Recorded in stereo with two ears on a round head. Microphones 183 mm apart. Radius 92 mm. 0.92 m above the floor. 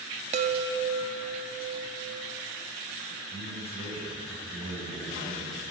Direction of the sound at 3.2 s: 35° left (ahead or behind).